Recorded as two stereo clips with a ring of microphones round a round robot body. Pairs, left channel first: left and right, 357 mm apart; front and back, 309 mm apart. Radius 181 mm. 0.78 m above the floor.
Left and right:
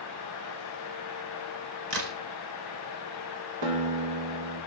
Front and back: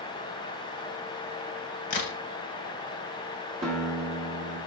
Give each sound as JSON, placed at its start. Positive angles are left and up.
{"t": 1.9, "sound": "a crack", "azimuth_deg": -40, "distance_m": 1.5}
{"t": 3.6, "sound": "a guitar", "azimuth_deg": -110, "distance_m": 2.0}